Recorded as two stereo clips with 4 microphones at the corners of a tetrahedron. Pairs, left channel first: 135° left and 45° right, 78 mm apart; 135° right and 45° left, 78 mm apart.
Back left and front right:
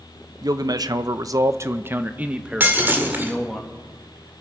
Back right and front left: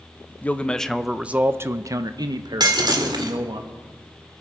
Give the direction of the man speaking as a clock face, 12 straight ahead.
2 o'clock.